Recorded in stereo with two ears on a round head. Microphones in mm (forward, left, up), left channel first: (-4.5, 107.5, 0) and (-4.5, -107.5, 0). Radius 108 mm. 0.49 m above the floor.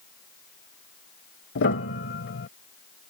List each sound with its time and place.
1.6 s a piano: 50° left (ahead or behind)